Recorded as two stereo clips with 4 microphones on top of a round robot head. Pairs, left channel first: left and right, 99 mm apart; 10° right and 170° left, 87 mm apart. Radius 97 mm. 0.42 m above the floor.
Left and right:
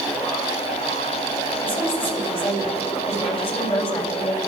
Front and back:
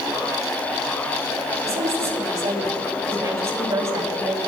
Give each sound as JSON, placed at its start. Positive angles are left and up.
{"t": 1.6, "sound": "a woman speaking", "azimuth_deg": 110, "distance_m": 6.0}